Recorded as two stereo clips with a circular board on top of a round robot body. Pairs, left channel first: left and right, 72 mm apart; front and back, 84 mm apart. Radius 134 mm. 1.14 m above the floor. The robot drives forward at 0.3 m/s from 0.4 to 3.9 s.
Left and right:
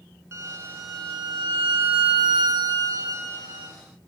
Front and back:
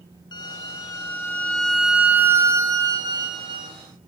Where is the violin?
40° right, 0.7 m; by 3.8 s 150° right, 0.8 m.